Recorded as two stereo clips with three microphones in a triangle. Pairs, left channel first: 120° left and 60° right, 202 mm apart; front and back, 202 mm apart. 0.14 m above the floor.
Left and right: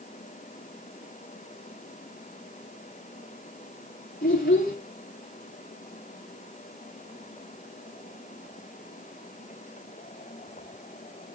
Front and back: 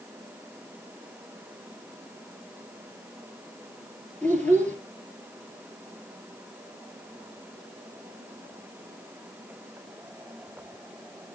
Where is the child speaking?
85° left, 2.5 m.